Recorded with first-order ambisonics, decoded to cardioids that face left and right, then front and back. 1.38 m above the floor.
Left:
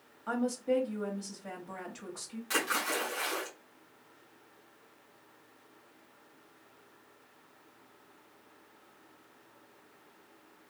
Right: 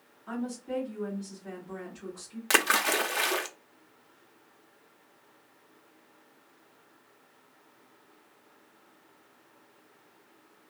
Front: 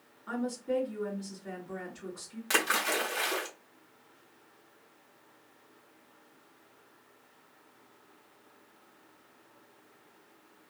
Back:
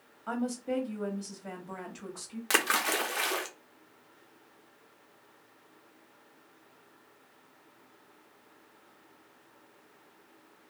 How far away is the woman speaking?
About 1.4 m.